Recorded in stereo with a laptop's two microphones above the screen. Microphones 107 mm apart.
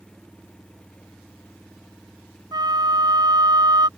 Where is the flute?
40° right (ahead or behind).